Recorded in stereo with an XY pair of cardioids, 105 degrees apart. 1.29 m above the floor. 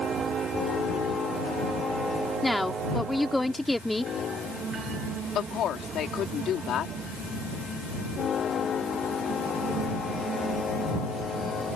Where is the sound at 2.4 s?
5° left.